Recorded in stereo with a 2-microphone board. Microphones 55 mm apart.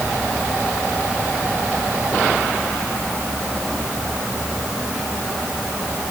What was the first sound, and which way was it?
Only background noise.